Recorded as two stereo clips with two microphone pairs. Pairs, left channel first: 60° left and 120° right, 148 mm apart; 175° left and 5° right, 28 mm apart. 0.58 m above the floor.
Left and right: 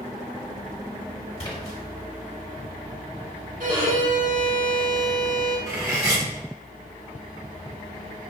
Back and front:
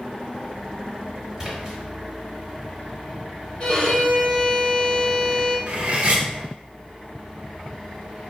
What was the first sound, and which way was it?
A splash, 50° left.